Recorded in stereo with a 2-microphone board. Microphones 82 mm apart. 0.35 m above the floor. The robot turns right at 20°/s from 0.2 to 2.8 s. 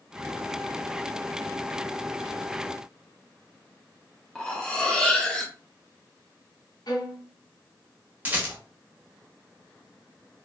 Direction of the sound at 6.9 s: 65° left (ahead or behind).